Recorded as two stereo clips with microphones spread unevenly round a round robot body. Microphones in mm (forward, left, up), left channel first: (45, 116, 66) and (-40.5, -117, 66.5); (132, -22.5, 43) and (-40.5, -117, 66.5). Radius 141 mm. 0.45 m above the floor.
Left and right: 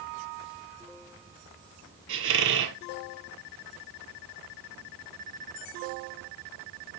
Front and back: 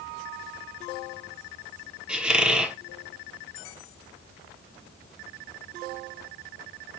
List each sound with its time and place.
2.1 s a squeak: 70° right, 0.7 m